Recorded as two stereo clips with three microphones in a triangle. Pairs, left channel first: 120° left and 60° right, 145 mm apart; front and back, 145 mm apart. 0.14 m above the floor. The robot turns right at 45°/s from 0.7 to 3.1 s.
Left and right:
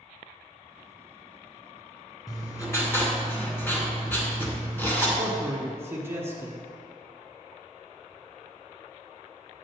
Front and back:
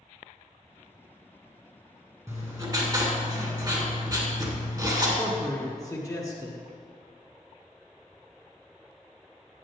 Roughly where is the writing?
Behind left.